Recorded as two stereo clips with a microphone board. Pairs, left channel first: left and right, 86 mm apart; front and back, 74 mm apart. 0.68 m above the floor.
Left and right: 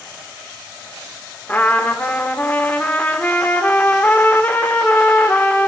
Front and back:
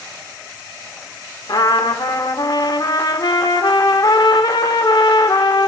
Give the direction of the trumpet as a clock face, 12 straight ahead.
11 o'clock.